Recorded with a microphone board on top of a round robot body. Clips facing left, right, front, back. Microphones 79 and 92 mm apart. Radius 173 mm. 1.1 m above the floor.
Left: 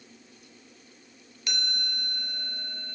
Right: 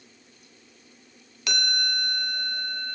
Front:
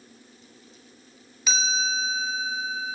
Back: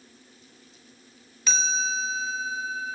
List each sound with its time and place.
1.5 s a chime: 85° right, 0.7 m